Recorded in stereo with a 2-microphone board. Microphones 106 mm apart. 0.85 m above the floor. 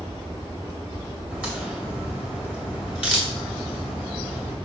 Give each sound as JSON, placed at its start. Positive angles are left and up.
{"t": 1.3, "sound": "a crack", "side_deg": -10, "distance_m": 2.0}